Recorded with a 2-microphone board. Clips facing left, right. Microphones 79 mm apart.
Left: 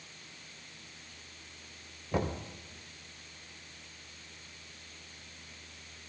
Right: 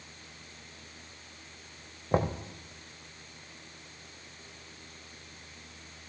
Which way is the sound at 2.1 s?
45° right (ahead or behind).